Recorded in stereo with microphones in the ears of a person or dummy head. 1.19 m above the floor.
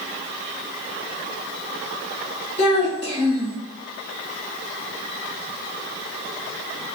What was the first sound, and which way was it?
A child speaking, 10° left (ahead or behind).